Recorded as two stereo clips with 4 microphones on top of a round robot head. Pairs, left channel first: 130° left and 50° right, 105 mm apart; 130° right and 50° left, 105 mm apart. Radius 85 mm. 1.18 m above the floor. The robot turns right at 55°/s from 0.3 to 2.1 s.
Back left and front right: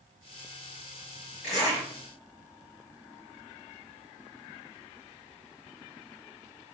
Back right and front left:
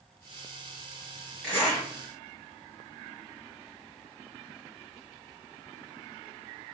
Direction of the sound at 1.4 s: 145° left.